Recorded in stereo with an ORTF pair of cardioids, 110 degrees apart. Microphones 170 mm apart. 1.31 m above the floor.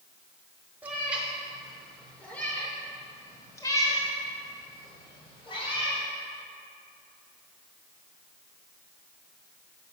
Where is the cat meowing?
10° right, 2.5 m; by 6.0 s 30° left, 4.5 m.